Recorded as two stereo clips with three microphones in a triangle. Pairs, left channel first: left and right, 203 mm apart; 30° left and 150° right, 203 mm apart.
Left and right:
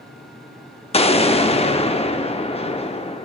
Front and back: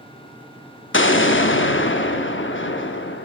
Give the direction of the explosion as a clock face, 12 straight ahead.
11 o'clock.